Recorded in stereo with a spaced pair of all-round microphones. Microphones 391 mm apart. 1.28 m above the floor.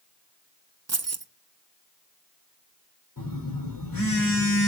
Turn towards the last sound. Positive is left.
turn(degrees=60)  # may be behind; listen again after turning